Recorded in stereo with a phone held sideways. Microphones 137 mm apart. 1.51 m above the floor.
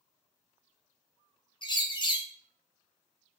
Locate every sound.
1.6 s a bird: 35° left (ahead or behind), 0.6 m